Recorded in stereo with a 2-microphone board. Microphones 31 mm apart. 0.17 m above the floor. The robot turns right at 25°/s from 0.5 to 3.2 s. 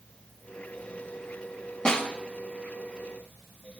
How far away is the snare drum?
About 1.0 m.